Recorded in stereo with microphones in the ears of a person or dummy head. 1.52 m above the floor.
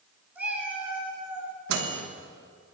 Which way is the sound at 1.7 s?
55° right (ahead or behind).